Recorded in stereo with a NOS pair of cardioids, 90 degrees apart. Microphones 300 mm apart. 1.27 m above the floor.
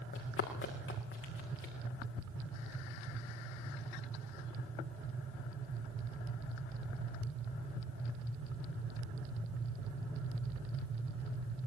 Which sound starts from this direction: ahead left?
Running footsteps, at 0.1 s.